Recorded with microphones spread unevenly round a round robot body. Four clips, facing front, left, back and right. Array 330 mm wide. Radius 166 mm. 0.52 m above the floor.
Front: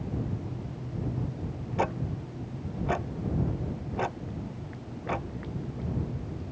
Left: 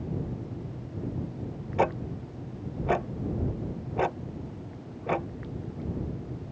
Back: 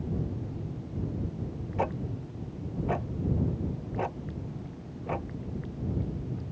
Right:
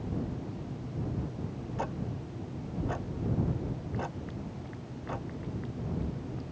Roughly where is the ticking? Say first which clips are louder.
Left 10 dB, front 2 dB; left.